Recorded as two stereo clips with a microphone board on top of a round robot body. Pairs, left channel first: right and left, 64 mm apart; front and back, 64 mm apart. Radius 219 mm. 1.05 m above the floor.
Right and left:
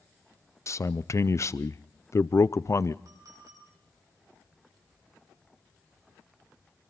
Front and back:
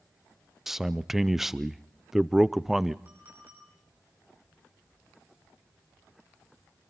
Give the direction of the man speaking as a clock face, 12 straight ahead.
3 o'clock.